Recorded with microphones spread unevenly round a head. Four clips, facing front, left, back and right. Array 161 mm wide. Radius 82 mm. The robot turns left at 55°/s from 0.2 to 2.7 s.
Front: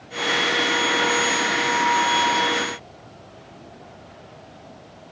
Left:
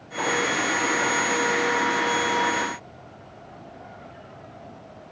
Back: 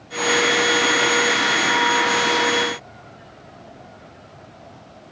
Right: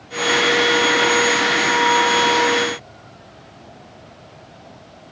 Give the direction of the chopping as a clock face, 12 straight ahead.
I don't hear chopping.